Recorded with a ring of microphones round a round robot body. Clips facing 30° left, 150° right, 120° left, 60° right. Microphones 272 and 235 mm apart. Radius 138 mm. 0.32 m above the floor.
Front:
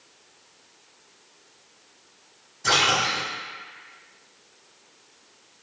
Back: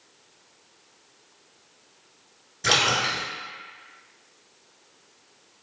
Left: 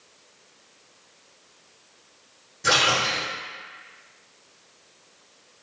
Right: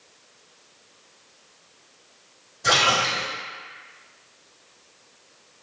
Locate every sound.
2.6 s a splash: 165° right, 1.1 m